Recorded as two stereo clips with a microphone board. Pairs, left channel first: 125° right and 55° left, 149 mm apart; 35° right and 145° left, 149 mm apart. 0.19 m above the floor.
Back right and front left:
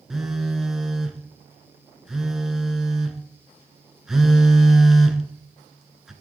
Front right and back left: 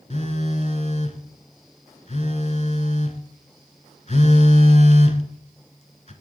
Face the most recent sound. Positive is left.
turn(degrees=-30)